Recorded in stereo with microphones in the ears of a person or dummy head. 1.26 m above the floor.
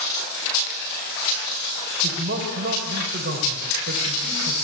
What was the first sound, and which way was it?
A man speaking, 50° right (ahead or behind).